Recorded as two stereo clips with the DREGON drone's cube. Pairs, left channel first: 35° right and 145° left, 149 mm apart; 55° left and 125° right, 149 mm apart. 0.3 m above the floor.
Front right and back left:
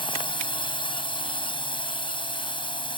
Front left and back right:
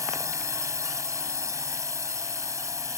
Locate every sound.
0.0 s a drone: 65° right